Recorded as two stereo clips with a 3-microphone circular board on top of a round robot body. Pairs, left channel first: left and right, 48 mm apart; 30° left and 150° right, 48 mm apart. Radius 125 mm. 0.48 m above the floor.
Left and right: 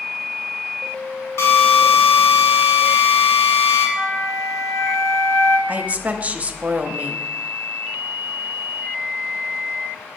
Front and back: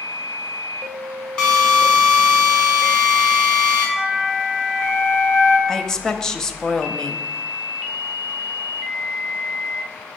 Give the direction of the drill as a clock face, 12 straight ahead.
9 o'clock.